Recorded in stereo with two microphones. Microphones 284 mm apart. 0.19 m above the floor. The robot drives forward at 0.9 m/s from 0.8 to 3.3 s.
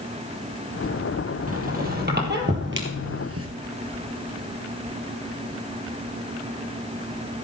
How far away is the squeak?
About 3 m.